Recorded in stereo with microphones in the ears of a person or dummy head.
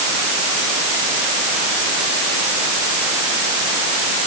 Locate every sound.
Only background noise.